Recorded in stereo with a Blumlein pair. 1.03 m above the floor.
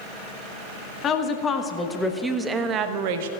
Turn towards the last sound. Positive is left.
turn(degrees=-55)